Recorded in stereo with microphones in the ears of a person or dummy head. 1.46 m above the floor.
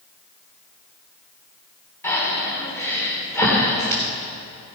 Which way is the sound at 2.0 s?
10° left (ahead or behind).